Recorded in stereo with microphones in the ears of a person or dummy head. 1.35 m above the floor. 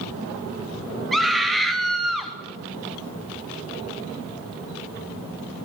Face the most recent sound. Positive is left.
turn(degrees=-5)  # may be behind; listen again after turning